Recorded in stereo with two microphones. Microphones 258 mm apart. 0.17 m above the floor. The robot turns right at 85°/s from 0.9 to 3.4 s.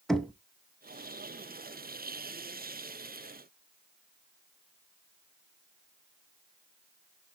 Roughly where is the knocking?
Centre.